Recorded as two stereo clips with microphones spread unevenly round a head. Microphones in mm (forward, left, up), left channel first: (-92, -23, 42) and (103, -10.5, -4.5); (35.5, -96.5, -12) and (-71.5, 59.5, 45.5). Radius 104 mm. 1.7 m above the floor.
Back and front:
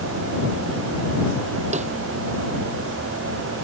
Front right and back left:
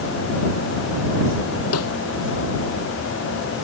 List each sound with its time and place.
1.7 s a snare drum: 55° right